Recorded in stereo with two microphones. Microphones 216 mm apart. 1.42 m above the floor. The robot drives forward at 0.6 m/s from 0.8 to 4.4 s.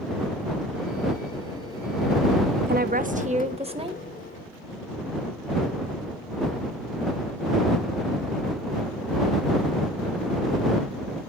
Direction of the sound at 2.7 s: 45° right (ahead or behind).